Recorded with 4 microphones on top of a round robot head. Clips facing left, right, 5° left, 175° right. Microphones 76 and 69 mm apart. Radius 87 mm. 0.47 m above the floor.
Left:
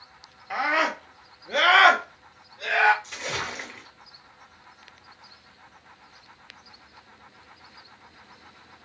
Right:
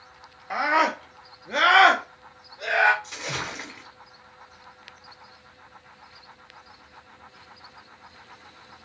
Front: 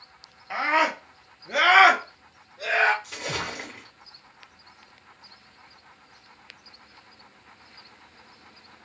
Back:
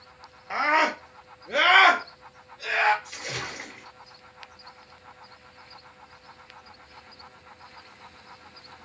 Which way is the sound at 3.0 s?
Straight ahead.